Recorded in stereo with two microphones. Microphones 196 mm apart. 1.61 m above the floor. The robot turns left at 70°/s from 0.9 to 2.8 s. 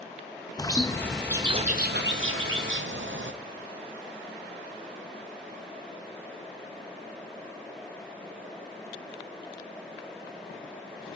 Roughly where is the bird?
Ahead.